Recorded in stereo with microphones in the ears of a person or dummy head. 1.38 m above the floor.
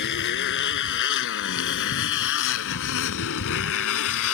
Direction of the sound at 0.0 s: 60° left (ahead or behind).